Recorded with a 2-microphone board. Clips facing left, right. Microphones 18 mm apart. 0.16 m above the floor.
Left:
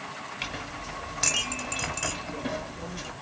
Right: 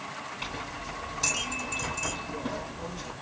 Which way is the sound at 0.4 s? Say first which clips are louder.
Left 2 dB; 40° left (ahead or behind).